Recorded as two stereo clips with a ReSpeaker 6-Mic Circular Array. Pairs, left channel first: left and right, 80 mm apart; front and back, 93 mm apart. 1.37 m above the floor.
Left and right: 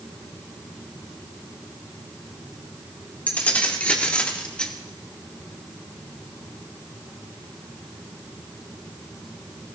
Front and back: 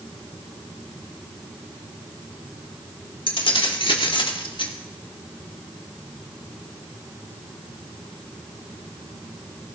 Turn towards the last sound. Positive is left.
turn(degrees=10)